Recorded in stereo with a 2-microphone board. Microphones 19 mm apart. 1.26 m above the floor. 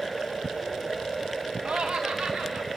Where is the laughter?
80° right, 1.6 m; by 2.7 s 75° right (ahead or behind), 3 m.